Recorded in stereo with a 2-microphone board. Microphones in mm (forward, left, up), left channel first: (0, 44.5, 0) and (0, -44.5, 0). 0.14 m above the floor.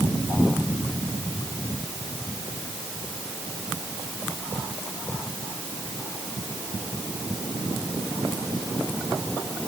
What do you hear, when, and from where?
Only background noise.